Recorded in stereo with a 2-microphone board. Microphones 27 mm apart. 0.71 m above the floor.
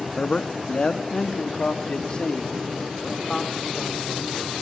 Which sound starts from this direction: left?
A man speaking, at 0.2 s.